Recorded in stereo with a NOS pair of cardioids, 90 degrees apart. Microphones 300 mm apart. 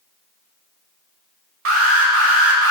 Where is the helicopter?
I don't hear a helicopter.